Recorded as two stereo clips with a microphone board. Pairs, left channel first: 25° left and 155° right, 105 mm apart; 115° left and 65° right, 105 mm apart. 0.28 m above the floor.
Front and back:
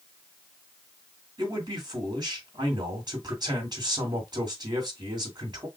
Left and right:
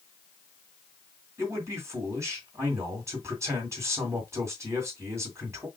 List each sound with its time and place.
1.4 s a man speaking: 125° right, 2.5 m